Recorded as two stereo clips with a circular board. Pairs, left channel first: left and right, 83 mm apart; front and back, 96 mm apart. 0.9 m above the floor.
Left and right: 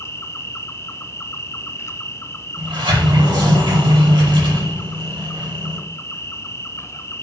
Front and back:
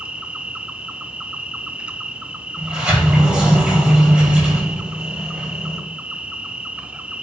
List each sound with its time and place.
0.0 s an insect: 110° left, 0.9 m
2.6 s a sliding door: 100° right, 6 m